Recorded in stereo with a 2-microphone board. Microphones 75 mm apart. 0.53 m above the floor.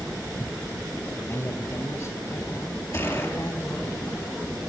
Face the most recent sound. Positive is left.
turn(degrees=40)  # may be behind; listen again after turning